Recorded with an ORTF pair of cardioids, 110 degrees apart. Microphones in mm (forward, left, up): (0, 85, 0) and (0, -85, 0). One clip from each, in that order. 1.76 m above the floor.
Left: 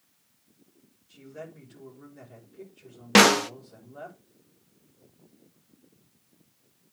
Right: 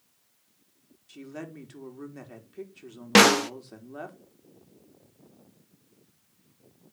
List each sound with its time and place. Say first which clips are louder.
1.1 s a woman speaking: right 2 dB; 65° right, 3.5 m
3.1 s a snare drum: even; straight ahead, 0.5 m